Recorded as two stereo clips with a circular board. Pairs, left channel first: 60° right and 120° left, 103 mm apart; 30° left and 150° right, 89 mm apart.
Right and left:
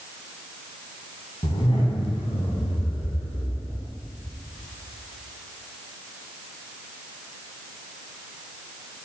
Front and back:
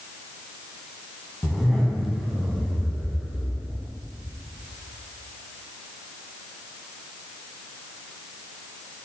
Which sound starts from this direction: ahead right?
A zipper, at 1.4 s.